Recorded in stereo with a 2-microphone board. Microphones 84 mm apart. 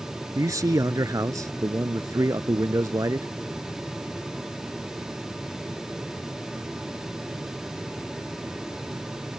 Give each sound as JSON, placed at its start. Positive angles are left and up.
{"t": 0.3, "sound": "a man speaking", "side_deg": -40}